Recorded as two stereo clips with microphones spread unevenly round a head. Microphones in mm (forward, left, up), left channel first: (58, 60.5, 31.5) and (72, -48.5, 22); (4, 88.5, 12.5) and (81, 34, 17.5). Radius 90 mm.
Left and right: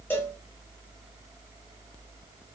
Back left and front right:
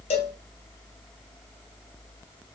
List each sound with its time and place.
0.1 s a cowbell: 175° left, 0.7 m